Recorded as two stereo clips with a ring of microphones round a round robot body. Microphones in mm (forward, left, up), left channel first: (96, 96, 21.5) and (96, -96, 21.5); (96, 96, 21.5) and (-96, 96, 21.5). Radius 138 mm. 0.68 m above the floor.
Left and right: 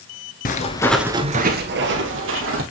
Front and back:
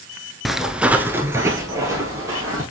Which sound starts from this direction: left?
Footsteps, at 0.5 s.